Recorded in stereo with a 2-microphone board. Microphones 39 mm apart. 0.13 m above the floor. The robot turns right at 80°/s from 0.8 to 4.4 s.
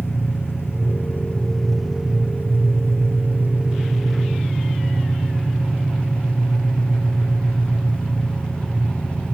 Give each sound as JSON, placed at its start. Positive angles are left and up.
{"t": 0.0, "sound": "an engine running", "azimuth_deg": 100, "distance_m": 3.5}